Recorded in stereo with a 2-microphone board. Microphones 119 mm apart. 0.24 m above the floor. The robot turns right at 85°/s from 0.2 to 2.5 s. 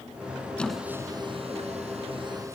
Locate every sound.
0.6 s a squeak: 10° left (ahead or behind), 2 m; by 2.6 s 25° right (ahead or behind), 2 m